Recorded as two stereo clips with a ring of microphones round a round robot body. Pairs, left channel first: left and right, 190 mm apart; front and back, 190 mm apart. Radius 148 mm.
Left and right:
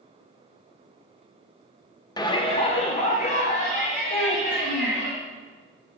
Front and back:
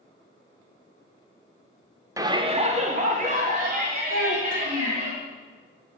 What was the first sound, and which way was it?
A shout, 130° left.